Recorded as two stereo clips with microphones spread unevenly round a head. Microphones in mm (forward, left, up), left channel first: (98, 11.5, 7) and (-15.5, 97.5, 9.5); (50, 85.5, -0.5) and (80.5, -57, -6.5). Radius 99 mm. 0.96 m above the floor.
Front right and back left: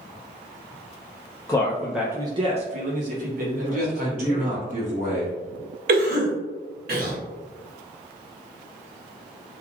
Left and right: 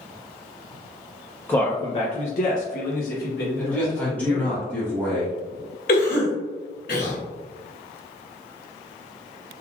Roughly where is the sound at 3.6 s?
Behind.